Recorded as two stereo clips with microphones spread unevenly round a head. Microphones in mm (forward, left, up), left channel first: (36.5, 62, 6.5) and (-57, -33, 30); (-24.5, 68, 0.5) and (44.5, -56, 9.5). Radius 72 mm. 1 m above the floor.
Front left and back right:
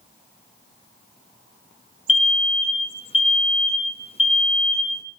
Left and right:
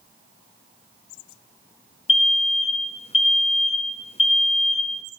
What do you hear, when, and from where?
2.1 s an alarm: 80° left, 2 m